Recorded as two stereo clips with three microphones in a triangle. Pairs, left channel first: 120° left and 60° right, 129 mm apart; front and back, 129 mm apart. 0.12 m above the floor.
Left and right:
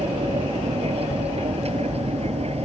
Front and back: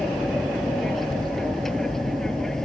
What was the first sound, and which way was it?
An aircraft, 85° right.